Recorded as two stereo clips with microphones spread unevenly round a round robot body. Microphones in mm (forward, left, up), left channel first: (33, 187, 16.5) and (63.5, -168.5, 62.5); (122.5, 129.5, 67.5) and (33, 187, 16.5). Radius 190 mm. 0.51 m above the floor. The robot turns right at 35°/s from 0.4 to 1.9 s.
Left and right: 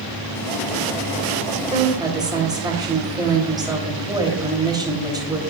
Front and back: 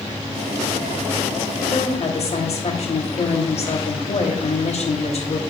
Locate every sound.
1.7 s a woman speaking: 10° right, 2.5 m; by 5.4 s 5° right, 2.5 m